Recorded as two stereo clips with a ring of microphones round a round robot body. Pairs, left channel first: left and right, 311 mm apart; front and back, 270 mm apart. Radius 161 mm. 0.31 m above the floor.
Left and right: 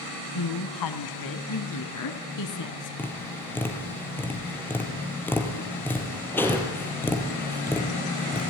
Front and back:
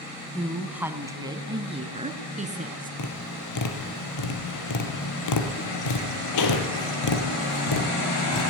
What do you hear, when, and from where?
0.3 s a woman speaking: 90° left, 2.5 m; by 2.9 s 120° left, 4 m
3.0 s tapping: 5° left, 3.5 m